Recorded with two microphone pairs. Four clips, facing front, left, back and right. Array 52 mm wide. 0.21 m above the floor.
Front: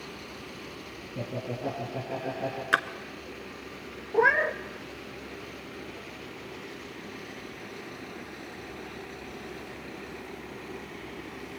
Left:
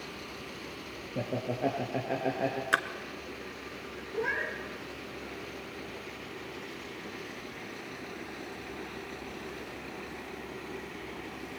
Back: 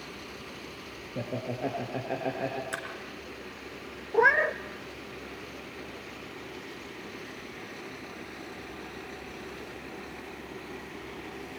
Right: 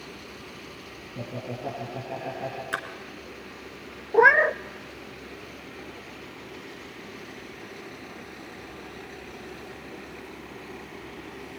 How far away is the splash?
About 1.8 m.